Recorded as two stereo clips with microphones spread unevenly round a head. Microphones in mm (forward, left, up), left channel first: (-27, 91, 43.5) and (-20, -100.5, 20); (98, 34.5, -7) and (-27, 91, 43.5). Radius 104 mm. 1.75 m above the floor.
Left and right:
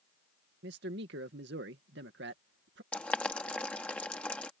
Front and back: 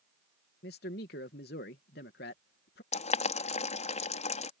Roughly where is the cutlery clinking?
No cutlery clinking in this recording.